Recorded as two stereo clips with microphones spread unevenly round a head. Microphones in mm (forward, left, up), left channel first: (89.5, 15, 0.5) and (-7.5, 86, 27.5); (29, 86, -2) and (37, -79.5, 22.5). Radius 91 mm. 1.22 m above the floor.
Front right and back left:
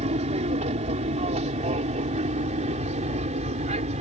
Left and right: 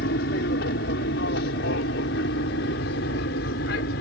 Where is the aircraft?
120° left.